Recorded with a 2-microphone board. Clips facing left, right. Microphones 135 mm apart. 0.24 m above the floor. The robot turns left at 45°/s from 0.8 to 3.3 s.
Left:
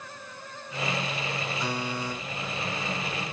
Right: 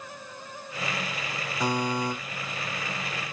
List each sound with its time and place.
1.6 s a buzzer: 85° right, 8 m; by 2.1 s 65° right (ahead or behind), 8 m